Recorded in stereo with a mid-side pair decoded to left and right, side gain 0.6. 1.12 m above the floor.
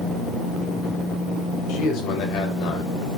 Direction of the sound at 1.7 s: 60° left.